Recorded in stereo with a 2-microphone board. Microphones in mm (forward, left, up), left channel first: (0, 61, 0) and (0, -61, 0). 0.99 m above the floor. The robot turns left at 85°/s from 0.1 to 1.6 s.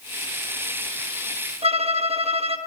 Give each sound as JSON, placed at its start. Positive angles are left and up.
{"t": 1.6, "sound": "a violin", "side_deg": -55, "distance_m": 1.4}